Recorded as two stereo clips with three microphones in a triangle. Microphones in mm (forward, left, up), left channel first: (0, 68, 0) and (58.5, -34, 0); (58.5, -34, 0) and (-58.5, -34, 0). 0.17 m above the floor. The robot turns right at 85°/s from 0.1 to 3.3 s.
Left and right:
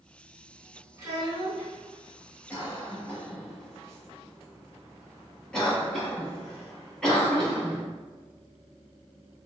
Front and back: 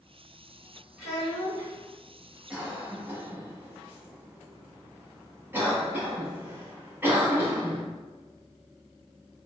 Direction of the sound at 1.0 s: 105° right.